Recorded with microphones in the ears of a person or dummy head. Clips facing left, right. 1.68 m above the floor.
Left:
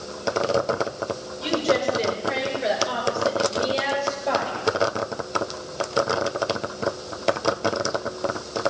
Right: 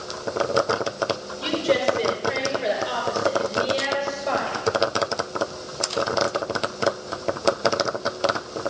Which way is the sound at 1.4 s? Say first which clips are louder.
Even; 5° right (ahead or behind).